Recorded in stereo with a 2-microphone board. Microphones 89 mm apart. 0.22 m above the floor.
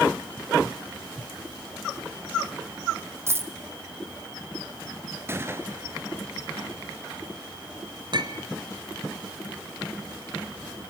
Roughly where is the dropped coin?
Right.